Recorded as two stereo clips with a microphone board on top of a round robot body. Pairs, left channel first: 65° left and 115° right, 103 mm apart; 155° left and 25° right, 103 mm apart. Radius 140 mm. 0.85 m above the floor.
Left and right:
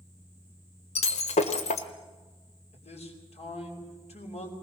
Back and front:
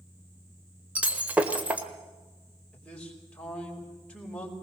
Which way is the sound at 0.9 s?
55° left.